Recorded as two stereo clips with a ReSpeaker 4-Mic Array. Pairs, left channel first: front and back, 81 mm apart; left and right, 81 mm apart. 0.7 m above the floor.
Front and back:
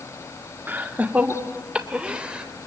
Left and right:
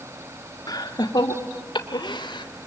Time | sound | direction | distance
0.7 | laughter | 115° left | 1.7 m